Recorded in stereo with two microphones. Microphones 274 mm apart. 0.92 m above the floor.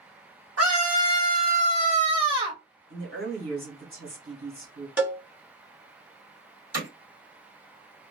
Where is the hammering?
65° right (ahead or behind), 1.4 m.